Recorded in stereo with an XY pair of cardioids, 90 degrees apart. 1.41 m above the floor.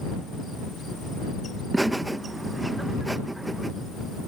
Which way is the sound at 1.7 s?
15° right.